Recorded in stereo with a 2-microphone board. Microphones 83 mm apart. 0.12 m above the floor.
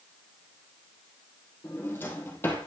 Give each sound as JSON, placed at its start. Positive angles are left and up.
{"t": 1.6, "sound": "a drawer", "side_deg": 25, "distance_m": 2.5}